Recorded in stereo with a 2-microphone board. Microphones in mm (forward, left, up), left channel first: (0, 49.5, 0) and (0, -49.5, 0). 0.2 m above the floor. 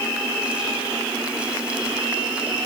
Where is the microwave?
No microwave in this recording.